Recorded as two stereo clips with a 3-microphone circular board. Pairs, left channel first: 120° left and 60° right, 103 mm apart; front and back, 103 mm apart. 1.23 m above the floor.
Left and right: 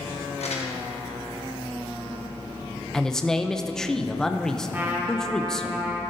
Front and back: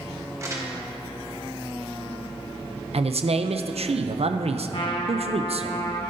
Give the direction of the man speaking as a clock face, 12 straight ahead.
5 o'clock.